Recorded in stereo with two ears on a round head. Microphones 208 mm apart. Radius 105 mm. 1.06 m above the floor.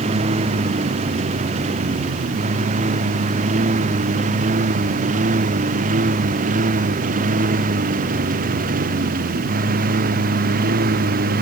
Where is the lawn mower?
25° right (ahead or behind); by 11.4 s 40° right (ahead or behind).